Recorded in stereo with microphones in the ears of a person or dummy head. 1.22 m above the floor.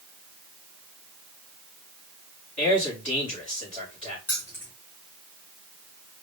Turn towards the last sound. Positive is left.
turn(degrees=15)  # may be behind; listen again after turning